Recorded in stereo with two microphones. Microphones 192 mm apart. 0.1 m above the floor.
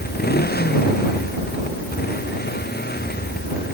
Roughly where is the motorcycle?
Left.